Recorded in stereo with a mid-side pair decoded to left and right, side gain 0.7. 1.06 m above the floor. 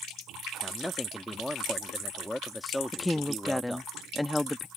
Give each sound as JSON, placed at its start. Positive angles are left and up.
{"t": 0.6, "sound": "a man speaking", "azimuth_deg": 5}
{"t": 2.9, "sound": "a woman speaking", "azimuth_deg": 5}